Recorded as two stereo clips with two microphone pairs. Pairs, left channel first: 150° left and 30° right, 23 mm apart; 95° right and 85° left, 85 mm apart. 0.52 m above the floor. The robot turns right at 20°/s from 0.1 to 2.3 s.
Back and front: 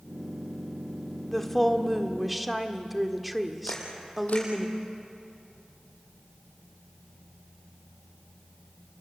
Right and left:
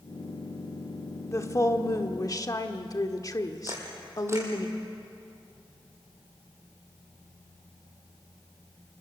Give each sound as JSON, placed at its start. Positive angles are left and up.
{"t": 1.3, "sound": "a woman speaking", "azimuth_deg": -135, "distance_m": 1.4}
{"t": 3.7, "sound": "a camera shutter", "azimuth_deg": 145, "distance_m": 5.0}